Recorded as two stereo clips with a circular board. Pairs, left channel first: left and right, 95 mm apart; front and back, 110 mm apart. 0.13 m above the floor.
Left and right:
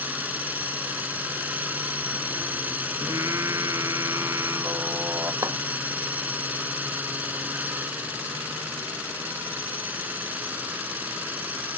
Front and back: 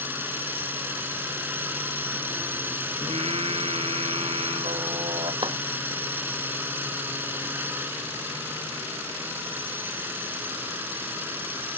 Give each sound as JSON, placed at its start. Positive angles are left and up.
{"t": 0.0, "sound": "a drone", "azimuth_deg": -135}
{"t": 3.0, "sound": "singing", "azimuth_deg": -150}
{"t": 5.4, "sound": "a clap", "azimuth_deg": -140}